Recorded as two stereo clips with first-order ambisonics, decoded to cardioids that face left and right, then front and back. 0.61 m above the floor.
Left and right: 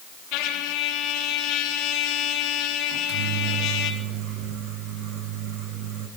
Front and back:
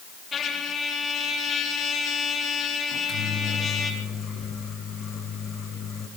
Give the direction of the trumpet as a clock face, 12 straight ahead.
10 o'clock.